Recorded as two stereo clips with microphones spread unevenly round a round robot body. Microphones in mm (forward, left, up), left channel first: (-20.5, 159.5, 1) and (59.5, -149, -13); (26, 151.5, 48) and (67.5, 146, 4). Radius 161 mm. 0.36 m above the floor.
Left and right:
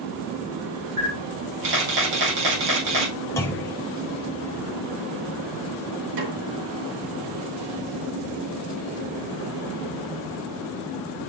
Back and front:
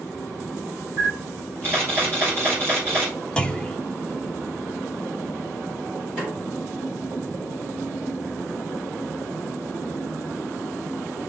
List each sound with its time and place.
1.0 s a camera shutter: 45° right, 4 m
3.4 s a clunk: 25° left, 1.5 m
6.2 s a snare drum: 60° right, 3.5 m